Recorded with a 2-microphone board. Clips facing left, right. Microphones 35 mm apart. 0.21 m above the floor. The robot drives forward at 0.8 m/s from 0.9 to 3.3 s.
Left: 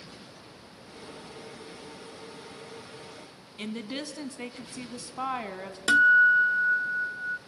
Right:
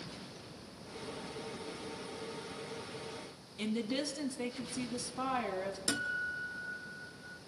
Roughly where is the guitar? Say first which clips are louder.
Left 21 dB; left.